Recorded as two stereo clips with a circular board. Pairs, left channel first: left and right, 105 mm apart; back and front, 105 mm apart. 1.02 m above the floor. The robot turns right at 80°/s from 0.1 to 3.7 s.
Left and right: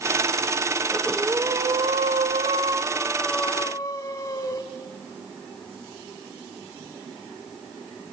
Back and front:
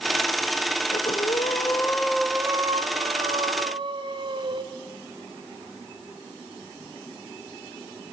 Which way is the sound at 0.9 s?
170° left.